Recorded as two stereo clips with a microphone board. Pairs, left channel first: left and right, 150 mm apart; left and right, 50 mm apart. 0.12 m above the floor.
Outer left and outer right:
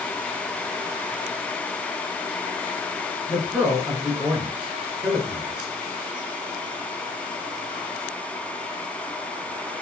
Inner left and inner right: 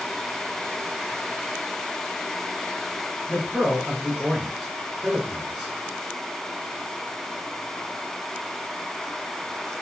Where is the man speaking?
5° right (ahead or behind), 1.4 m.